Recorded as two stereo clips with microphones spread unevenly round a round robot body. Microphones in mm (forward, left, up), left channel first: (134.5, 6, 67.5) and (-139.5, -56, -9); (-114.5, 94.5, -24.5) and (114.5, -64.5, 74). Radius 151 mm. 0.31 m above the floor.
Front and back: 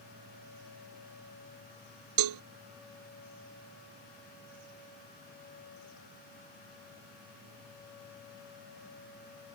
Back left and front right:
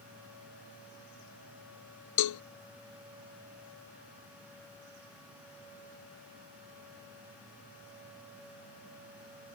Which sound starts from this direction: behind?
A cowbell, at 2.2 s.